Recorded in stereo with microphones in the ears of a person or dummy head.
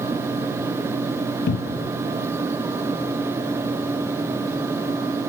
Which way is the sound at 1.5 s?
50° left (ahead or behind).